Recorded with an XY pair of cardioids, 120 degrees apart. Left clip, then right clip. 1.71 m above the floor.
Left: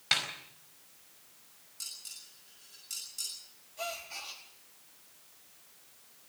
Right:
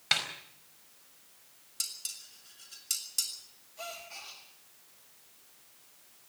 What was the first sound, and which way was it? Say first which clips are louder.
A snare drum: even; 10° right.